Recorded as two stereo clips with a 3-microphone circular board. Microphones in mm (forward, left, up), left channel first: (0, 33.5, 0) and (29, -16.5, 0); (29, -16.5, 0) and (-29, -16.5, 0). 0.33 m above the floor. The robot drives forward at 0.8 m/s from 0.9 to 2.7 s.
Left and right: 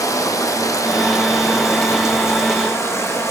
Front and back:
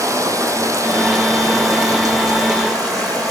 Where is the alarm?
I don't hear an alarm.